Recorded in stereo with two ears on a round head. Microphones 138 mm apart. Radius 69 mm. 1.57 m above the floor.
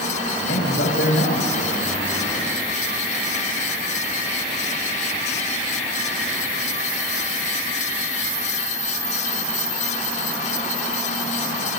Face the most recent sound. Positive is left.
turn(degrees=70)  # may be behind; listen again after turning